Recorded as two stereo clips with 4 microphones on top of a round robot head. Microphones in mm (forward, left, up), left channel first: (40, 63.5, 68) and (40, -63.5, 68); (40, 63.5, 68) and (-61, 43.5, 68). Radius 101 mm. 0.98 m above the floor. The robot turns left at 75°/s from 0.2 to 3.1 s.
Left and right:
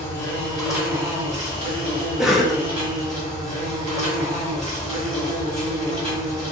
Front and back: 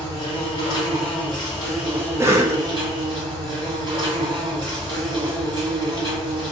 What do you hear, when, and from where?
0.0 s an insect: 30° left, 1.9 m; by 6.5 s 175° left, 1.9 m
2.2 s a cough: 165° right, 0.6 m; by 2.6 s 160° left, 0.6 m